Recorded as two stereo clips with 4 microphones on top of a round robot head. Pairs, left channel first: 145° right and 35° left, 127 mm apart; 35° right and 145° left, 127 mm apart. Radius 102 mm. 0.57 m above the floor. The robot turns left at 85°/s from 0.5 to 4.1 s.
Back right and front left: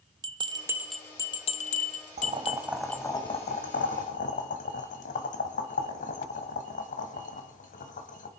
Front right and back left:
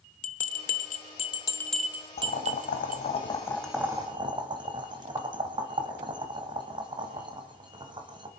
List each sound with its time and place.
0.2 s a bell: 20° right, 1.1 m; by 3.0 s 125° left, 1.1 m
2.2 s boiling: straight ahead, 2 m; by 8.3 s 160° right, 2 m